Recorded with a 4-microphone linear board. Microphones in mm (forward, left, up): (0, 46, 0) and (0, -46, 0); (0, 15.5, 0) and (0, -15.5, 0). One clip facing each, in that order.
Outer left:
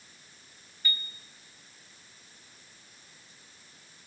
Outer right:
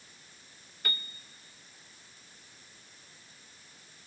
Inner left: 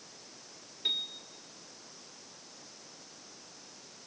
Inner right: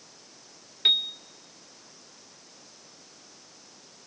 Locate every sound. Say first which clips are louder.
0.8 s a piano: outer left 1 dB, inner right 10 dB; 60° right (ahead or behind), 0.5 m